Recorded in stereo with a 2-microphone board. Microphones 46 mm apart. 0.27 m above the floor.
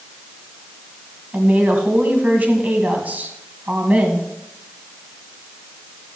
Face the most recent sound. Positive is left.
turn(degrees=-40)  # may be behind; listen again after turning